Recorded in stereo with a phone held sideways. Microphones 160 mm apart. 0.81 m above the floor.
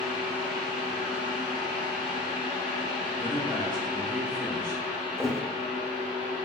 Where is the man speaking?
5° left (ahead or behind), 1.5 m.